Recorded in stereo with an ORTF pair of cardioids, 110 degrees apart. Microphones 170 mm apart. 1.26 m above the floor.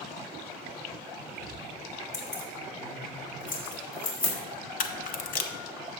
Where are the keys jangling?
40° left, 2 m; by 4.3 s 60° left, 3.5 m.